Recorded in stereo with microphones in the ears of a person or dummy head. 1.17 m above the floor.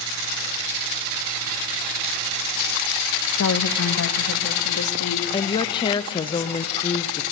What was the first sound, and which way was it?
A woman speaking, 70° left (ahead or behind).